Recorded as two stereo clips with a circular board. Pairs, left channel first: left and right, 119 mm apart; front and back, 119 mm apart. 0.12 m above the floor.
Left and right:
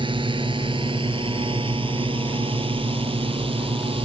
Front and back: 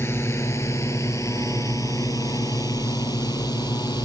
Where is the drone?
60° right; by 4.0 s 50° right.